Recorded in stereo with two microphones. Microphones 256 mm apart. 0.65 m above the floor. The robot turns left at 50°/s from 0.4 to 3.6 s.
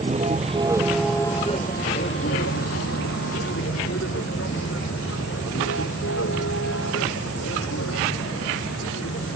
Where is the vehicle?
25° right (ahead or behind); by 9.4 s 65° left (ahead or behind).